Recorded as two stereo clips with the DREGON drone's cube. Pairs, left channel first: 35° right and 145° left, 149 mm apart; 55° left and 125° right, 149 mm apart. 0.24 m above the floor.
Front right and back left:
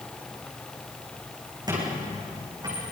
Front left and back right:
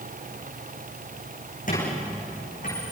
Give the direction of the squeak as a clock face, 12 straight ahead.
9 o'clock.